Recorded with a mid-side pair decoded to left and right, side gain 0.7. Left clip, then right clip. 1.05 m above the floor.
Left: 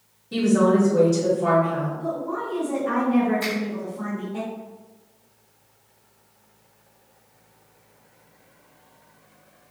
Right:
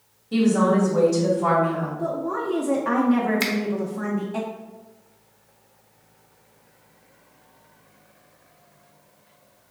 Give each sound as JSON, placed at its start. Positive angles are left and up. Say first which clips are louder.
{"t": 0.3, "sound": "a woman speaking", "louder": "left 1 dB", "azimuth_deg": 0, "distance_m": 1.9}
{"t": 2.0, "sound": "a woman speaking", "louder": "right 2 dB", "azimuth_deg": -50, "distance_m": 0.7}
{"t": 3.4, "sound": "a finger snap", "louder": "right 2 dB", "azimuth_deg": -70, "distance_m": 0.9}